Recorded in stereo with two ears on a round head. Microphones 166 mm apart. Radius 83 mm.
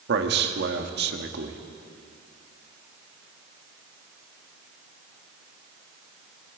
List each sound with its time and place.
0.1 s a man speaking: 60° right (ahead or behind), 1.8 m